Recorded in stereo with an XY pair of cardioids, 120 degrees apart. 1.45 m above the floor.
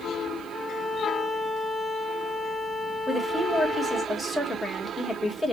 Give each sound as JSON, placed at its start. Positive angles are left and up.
{"t": 0.5, "sound": "a violin", "azimuth_deg": 5, "distance_m": 0.7}
{"t": 3.1, "sound": "a woman speaking", "azimuth_deg": 5, "distance_m": 1.7}